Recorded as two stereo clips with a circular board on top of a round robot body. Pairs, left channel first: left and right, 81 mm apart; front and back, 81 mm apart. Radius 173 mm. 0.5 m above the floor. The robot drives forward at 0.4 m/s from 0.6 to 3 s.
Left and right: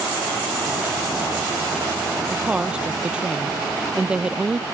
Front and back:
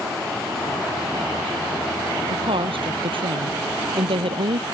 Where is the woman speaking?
170° right.